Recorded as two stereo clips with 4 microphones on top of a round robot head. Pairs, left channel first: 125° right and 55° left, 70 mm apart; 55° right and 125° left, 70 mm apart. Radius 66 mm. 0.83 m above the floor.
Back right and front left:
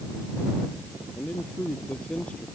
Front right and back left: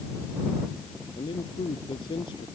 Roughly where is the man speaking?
Ahead right.